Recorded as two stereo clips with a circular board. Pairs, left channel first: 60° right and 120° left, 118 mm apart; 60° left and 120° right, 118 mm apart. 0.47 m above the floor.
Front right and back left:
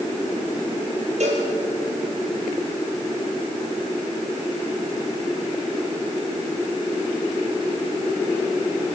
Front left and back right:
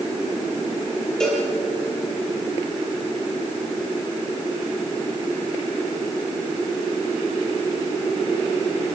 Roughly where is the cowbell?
Behind left.